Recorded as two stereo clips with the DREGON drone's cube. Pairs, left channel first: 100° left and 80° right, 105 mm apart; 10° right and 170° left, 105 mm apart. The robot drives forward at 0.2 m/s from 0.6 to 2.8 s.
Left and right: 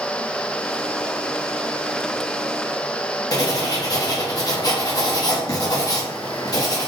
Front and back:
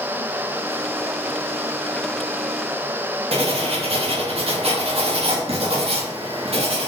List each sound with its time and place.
3.3 s writing: 150° left, 0.9 m